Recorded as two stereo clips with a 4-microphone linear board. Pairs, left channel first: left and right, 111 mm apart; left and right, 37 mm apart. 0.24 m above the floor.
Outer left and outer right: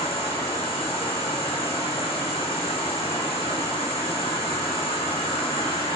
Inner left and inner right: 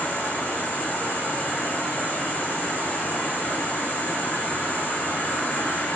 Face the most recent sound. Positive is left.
turn(degrees=60)  # may be behind; listen again after turning